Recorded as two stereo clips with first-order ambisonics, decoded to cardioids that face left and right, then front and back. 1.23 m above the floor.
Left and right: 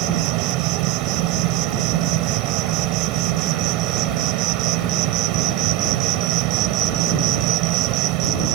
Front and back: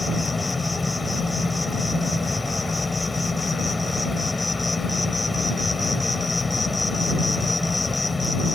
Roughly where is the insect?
Right.